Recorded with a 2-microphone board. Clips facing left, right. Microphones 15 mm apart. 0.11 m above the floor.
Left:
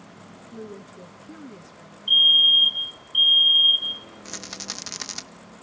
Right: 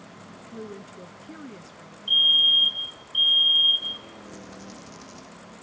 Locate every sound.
0.5 s a woman speaking: 25° right (ahead or behind), 1.2 m
2.1 s a fire alarm: 10° left (ahead or behind), 2.5 m
4.2 s a rattle: 80° left, 0.8 m